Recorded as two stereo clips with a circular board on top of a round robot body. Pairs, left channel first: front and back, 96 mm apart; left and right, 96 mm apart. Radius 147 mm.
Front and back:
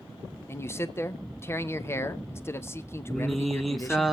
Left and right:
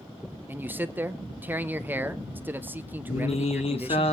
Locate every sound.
0.5 s a man speaking: 35° right, 1.1 m
3.1 s singing: 90° left, 1.5 m